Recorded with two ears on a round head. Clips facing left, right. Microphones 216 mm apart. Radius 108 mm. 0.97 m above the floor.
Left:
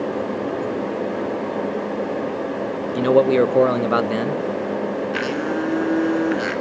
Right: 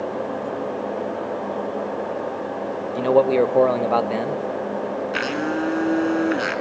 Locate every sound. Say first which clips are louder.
3.0 s a man speaking: left 2 dB; 20° left (ahead or behind), 0.8 m
5.1 s a blender: left 1 dB; 5° right (ahead or behind), 2 m